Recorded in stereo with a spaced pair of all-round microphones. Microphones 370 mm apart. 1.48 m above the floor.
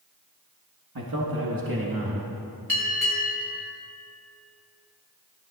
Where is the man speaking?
75° right (ahead or behind), 1.6 m; by 2.3 s 65° right (ahead or behind), 2.5 m.